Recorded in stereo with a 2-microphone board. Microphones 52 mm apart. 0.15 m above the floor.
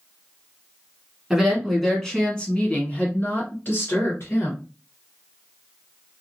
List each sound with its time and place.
1.3 s a woman speaking: 5° right (ahead or behind), 1.4 m; by 4.6 s 55° left (ahead or behind), 2.0 m